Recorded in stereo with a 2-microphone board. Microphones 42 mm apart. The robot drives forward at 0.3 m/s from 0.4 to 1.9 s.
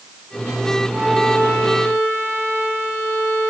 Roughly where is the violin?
Right.